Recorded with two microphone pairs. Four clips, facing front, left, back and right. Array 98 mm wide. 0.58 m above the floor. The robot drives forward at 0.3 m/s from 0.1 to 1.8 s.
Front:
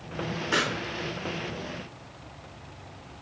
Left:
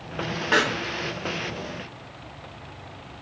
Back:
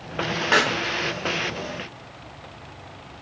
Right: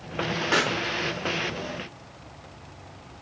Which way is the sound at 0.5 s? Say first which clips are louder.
Left 3 dB, back 7 dB; 175° left.